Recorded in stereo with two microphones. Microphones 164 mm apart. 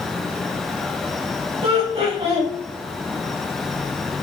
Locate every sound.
1.6 s laughter: 35° right (ahead or behind), 1.1 m